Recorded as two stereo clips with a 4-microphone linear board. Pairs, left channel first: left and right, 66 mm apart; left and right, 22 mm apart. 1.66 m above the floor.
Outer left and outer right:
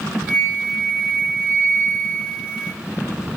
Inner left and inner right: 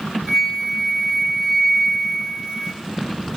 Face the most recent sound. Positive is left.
turn(degrees=-15)  # may be behind; listen again after turning